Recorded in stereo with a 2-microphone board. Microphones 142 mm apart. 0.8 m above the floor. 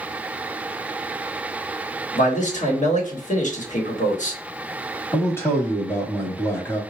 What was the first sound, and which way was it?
A man speaking, 60° left (ahead or behind).